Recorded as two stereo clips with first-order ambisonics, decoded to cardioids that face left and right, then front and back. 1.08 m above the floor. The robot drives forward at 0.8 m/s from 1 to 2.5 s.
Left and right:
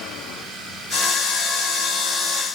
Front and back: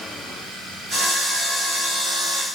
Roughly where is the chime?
No chime in this recording.